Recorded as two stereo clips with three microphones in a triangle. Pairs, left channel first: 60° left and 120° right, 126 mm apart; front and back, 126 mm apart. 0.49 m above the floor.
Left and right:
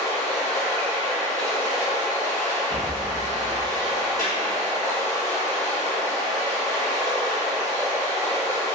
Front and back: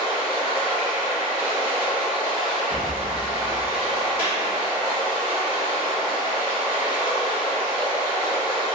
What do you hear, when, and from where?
0.0 s running water: 115° right, 1.7 m
2.7 s a rattle: 45° right, 1.0 m
4.2 s a clap: 110° right, 1.8 m